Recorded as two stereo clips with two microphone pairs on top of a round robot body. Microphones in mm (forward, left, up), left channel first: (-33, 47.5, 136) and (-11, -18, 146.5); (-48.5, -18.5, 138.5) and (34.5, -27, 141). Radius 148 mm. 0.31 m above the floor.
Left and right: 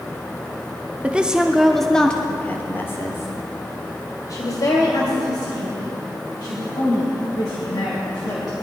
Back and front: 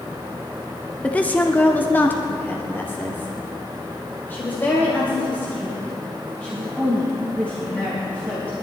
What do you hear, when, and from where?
1.0 s a woman speaking: 140° right, 1.5 m; by 8.5 s 105° left, 5 m